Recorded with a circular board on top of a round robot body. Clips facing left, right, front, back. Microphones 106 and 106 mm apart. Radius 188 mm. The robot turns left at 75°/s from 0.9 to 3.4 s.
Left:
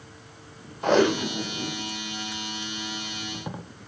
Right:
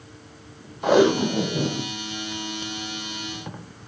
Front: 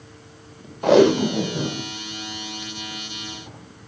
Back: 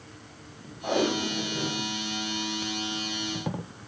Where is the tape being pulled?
5° right, 0.9 m; by 3.6 s 165° left, 0.9 m.